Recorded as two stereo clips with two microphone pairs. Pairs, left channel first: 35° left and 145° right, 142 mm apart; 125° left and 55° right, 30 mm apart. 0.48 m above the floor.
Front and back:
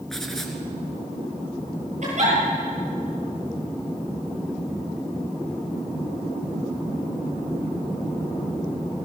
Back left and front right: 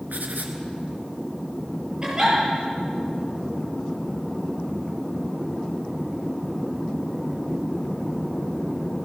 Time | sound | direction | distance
0.1 | writing | 55° right | 3 m
2.0 | a giggle | 115° right | 8 m